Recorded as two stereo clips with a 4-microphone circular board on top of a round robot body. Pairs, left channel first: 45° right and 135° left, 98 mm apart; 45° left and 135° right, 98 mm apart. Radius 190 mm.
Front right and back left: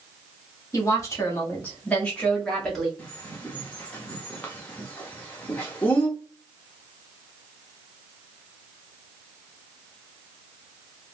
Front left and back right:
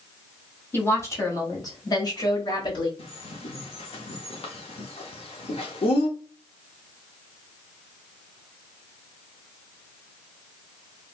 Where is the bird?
30° left, 1.0 m.